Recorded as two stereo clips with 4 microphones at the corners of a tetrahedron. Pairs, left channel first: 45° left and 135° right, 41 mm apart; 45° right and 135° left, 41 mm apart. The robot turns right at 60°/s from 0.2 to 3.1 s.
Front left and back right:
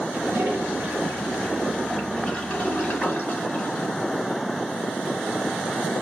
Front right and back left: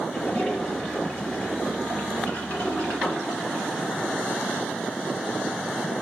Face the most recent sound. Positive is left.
turn(degrees=30)